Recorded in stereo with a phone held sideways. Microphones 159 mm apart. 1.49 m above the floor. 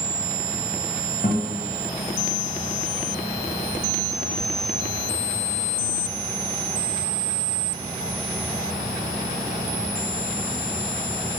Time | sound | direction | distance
1.2 | a guitar | 50° left (ahead or behind) | 0.7 m